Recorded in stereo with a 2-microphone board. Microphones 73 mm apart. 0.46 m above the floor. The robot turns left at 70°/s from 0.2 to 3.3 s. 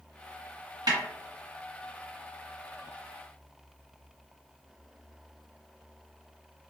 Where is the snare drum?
75° right (ahead or behind), 1.6 m; by 1.0 s 65° right (ahead or behind), 1.6 m.